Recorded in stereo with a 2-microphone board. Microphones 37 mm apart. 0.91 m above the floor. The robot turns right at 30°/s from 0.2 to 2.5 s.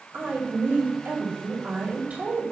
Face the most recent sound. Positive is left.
turn(degrees=-30)